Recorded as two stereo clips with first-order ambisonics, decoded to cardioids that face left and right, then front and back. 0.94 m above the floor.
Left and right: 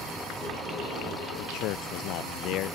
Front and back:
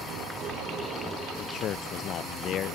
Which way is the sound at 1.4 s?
55° left.